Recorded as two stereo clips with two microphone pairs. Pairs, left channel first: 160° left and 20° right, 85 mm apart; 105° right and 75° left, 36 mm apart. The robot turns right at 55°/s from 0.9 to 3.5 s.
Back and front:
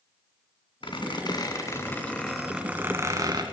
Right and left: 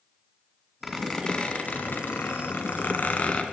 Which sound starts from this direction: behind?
A squeak, at 0.8 s.